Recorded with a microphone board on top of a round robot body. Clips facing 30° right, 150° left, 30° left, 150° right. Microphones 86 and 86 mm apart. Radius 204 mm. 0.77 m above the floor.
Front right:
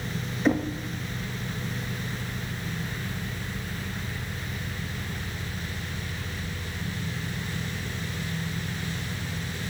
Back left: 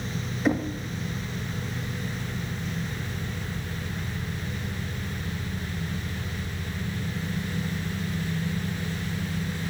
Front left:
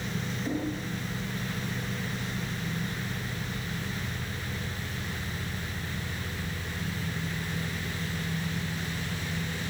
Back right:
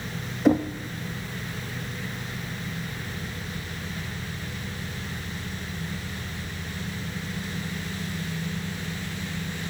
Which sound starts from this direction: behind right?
Knocking, at 0.5 s.